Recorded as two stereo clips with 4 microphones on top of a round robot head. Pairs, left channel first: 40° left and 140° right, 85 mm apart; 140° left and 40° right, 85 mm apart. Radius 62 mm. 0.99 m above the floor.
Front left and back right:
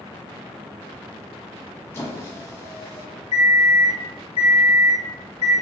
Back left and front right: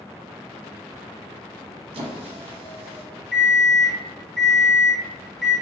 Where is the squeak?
20° right, 0.6 m.